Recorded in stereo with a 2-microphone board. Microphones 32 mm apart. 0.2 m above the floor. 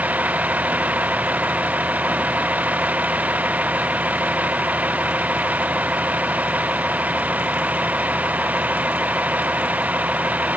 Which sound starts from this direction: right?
A vehicle, at 0.0 s.